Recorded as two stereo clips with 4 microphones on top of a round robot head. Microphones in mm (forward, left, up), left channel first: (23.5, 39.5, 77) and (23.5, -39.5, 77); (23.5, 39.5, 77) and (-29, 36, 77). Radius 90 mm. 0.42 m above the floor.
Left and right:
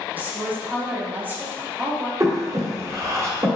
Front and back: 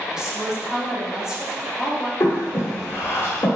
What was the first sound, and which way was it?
A woman speaking, 115° right.